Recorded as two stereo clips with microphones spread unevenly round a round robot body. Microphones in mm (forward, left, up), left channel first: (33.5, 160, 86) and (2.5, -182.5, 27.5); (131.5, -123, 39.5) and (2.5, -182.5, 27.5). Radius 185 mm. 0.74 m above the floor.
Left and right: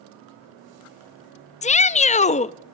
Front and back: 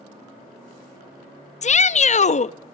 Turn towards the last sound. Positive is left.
turn(degrees=10)